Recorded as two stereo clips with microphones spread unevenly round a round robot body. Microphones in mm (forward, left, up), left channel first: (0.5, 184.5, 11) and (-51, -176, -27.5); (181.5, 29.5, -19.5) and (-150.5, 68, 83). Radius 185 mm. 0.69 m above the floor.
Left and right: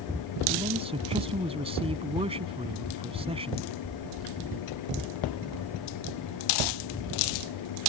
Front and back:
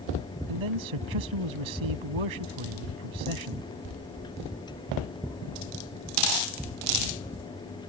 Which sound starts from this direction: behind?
A man speaking, at 0.5 s.